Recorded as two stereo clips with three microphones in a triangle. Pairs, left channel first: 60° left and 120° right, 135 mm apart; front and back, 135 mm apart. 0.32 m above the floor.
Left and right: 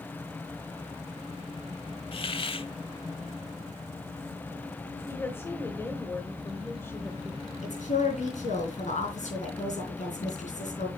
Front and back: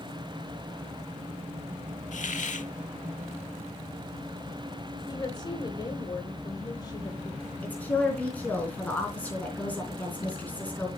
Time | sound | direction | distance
2.1 | a hiss | 15° left | 0.6 m
5.1 | a woman speaking | 5° left | 1.0 m
7.6 | a woman speaking | 80° left | 3.5 m